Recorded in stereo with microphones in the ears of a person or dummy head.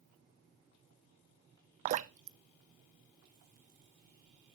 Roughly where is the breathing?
I don't hear breathing.